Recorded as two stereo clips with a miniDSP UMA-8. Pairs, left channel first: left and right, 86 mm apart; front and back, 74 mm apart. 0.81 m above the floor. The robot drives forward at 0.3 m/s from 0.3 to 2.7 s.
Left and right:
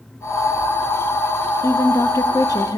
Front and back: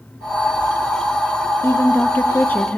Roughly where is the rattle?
No rattle in this recording.